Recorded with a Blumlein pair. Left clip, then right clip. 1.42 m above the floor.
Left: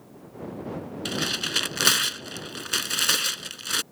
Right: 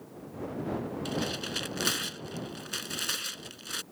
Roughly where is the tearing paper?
Ahead left.